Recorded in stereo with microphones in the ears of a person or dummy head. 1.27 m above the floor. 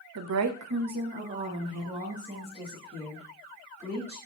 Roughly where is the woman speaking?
Right.